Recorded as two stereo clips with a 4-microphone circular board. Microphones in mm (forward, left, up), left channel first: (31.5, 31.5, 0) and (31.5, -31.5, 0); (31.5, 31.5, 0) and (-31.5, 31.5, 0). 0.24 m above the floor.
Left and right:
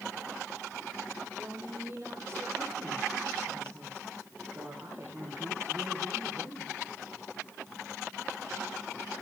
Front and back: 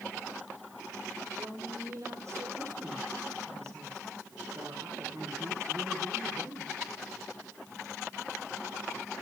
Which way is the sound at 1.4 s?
140° right.